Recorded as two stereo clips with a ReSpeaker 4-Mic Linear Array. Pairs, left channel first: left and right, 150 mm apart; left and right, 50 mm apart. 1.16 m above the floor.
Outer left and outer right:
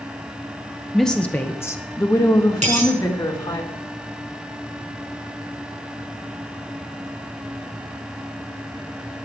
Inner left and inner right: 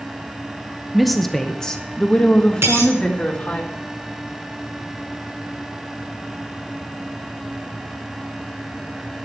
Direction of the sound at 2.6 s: 55° right (ahead or behind).